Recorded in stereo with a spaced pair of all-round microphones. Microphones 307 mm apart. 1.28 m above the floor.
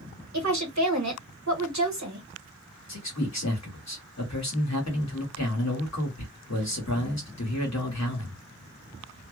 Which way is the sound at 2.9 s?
60° left (ahead or behind).